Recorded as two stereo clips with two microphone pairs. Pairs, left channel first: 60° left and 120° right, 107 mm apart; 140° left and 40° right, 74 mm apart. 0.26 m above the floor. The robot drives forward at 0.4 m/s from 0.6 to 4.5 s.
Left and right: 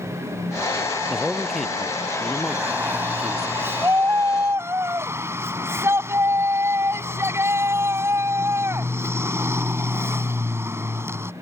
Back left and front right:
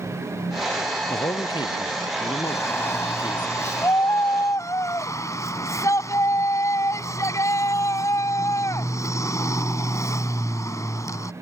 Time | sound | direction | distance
1.1 | a man speaking | 150° left | ?
2.5 | a shout | 175° left | ?